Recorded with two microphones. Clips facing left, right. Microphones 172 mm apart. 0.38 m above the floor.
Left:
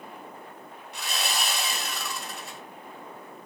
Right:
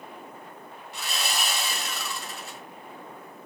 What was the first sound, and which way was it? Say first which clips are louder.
Sawing: even; centre (ahead or behind).